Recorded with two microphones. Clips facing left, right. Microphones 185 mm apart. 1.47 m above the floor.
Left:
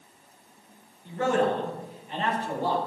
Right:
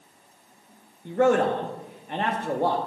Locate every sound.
1.1 s a man speaking: 55° right (ahead or behind), 0.9 m